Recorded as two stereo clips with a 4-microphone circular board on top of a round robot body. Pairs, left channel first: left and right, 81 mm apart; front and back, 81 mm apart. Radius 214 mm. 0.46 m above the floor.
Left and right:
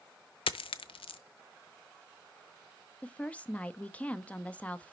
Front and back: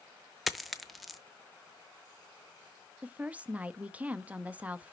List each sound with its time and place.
0.5 s a dropped coin: 90° left, 0.6 m
3.0 s a woman speaking: 135° left, 1.0 m